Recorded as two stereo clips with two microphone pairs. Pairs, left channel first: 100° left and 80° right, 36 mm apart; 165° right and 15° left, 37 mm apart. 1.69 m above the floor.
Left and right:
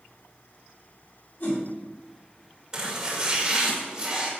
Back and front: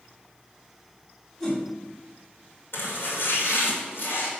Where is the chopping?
150° right, 2.5 m.